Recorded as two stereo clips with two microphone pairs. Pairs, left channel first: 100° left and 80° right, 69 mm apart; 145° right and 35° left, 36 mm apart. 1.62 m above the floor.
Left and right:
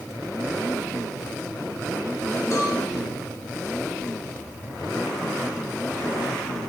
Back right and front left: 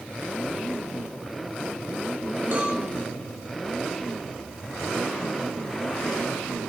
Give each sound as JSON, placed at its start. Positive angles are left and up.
{"t": 2.5, "sound": "a cowbell", "azimuth_deg": 65, "distance_m": 4.0}